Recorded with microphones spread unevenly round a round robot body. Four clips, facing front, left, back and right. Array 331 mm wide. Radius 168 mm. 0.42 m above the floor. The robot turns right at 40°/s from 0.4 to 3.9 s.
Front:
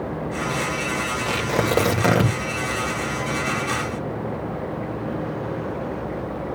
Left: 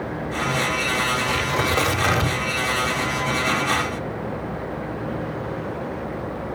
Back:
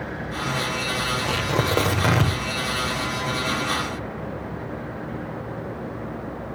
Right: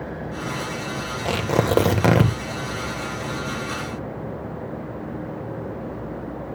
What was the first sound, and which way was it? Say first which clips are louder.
Tearing paper: right 1 dB, front 3 dB; 100° right.